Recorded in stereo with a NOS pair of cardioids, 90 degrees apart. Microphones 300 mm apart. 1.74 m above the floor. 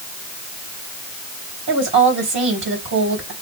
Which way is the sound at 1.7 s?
40° right.